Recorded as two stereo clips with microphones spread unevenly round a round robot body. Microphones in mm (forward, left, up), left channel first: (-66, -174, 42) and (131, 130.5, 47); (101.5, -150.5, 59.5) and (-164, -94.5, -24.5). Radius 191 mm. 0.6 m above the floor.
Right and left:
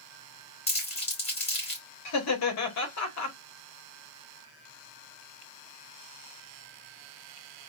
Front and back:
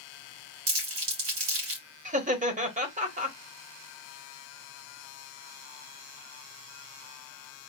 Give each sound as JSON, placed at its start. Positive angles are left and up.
{"t": 0.7, "sound": "crumpling", "azimuth_deg": 165, "distance_m": 2.5}
{"t": 2.0, "sound": "laughter", "azimuth_deg": -155, "distance_m": 1.3}